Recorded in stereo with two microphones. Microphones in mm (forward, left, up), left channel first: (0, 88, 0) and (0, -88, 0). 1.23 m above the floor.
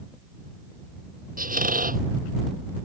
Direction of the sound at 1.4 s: 55° right (ahead or behind).